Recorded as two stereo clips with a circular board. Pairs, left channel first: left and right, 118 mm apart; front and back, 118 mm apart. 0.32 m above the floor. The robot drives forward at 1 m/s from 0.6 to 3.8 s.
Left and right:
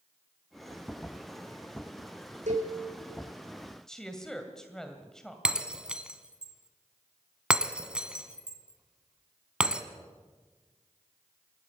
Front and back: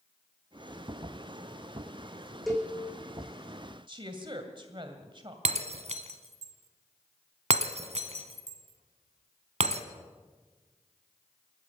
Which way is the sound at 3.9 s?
175° left.